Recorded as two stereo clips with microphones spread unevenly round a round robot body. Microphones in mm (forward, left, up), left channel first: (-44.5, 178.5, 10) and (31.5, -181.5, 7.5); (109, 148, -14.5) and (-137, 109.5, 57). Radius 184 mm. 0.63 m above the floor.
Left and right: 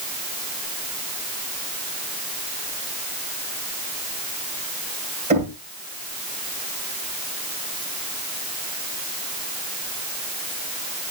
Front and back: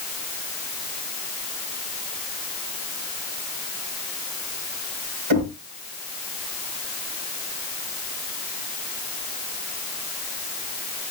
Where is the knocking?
150° right, 3 m.